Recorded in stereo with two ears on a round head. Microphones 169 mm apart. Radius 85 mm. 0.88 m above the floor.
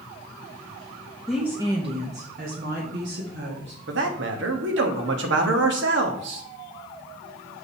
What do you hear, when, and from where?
1.3 s a woman speaking: centre (ahead or behind), 1.0 m; by 3.8 s 65° right (ahead or behind), 2.5 m
3.9 s a man speaking: 65° right (ahead or behind), 1.5 m